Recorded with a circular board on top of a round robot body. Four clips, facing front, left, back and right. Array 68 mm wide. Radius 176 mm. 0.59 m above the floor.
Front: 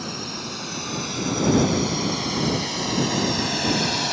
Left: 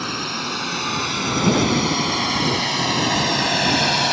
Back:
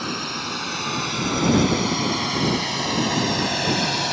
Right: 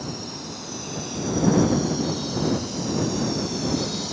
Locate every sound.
0.0 s a drone: 115° left; by 4.1 s 95° left